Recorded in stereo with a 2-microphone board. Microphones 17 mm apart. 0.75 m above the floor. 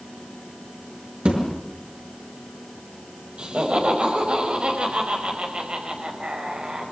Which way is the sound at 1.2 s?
80° right.